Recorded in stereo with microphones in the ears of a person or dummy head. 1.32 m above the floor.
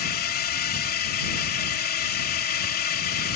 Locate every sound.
0.0 s a drone: 45° left (ahead or behind)